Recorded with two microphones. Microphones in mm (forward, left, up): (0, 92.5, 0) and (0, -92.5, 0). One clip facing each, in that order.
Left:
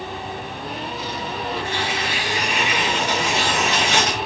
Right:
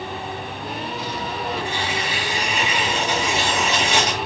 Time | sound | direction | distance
1.6 | tearing paper | 80° left | 5 m